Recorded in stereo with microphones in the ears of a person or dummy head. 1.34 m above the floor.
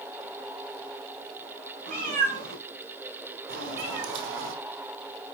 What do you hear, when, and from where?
1.9 s a cat meowing: 55° right (ahead or behind), 4.5 m; by 4.5 s 65° right (ahead or behind), 2 m